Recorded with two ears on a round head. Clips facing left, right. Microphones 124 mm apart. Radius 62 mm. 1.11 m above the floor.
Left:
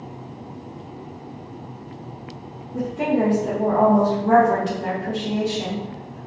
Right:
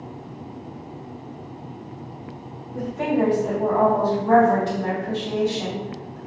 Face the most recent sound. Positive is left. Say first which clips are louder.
# left 1 dB
turn(degrees=20)  # may be behind; listen again after turning